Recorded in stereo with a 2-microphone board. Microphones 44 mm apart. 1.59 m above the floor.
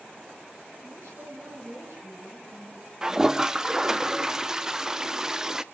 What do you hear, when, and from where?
0.8 s a woman speaking: 80° right, 8.5 m
3.0 s a toilet flushing: 15° right (ahead or behind), 0.5 m